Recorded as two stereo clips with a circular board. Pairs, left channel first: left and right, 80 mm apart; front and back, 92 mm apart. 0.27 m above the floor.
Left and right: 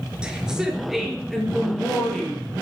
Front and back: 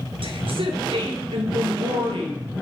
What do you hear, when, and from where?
0.2 s a woman speaking: 170° right, 4 m; by 2.4 s 165° left, 6.5 m